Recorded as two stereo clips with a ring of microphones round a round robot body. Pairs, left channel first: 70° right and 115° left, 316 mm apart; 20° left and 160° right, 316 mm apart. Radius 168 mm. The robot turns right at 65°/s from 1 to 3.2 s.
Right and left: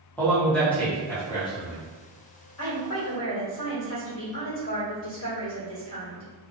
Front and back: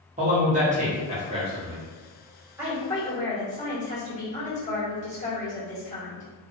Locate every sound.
0.2 s a man speaking: 145° right, 1.2 m; by 1.8 s 90° right, 1.2 m
2.6 s a woman speaking: 75° right, 1.7 m; by 6.3 s 35° right, 1.7 m